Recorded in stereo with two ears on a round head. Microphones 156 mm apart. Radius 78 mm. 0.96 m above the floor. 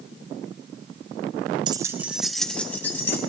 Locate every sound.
1.7 s keys jangling: 25° right (ahead or behind), 0.5 m; by 3.2 s 15° left (ahead or behind), 1.2 m